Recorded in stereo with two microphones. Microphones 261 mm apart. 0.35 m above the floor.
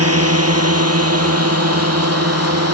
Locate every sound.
0.0 s a drone: 70° right (ahead or behind); by 2.7 s 75° right (ahead or behind)